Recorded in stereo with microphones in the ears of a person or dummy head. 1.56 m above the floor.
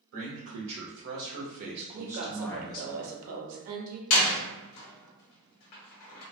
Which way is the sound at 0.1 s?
75° right (ahead or behind).